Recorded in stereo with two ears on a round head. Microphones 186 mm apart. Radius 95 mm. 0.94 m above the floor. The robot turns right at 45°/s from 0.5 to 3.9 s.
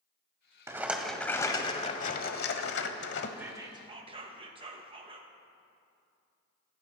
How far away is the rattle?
About 1.1 m.